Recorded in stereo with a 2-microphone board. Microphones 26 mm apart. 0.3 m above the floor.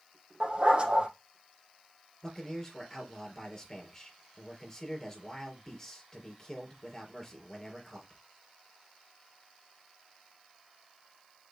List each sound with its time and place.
0.4 s a dog barking: 35° right (ahead or behind), 5 m
2.2 s a man speaking: 20° left (ahead or behind), 4.5 m